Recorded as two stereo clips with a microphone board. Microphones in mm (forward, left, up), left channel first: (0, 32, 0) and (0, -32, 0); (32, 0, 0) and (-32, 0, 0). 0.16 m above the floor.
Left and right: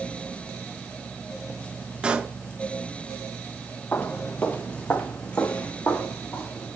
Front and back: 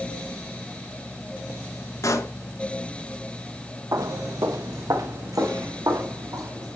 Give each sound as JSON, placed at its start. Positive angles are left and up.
{"t": 2.0, "sound": "a pop", "azimuth_deg": -20, "distance_m": 0.6}
{"t": 3.9, "sound": "footsteps", "azimuth_deg": 150, "distance_m": 0.6}